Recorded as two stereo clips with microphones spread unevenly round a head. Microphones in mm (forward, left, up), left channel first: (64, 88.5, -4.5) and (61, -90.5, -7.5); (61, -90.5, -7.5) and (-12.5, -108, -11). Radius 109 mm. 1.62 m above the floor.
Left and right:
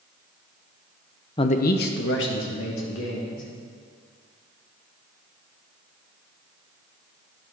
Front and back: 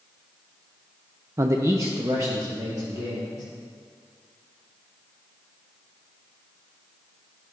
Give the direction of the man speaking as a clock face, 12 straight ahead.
7 o'clock.